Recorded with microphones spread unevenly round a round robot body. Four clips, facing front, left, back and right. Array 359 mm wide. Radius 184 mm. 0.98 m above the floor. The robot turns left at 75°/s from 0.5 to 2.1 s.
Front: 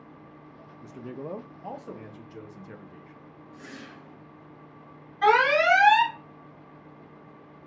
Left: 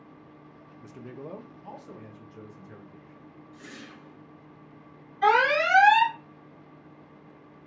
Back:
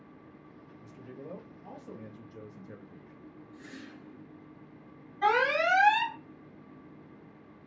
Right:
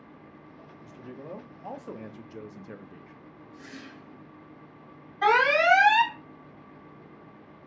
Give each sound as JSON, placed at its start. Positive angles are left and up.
{"t": 0.8, "sound": "a man speaking", "azimuth_deg": 40, "distance_m": 0.7}
{"t": 3.5, "sound": "a whoosh", "azimuth_deg": 0, "distance_m": 1.4}
{"t": 5.2, "sound": "an alarm", "azimuth_deg": -60, "distance_m": 2.0}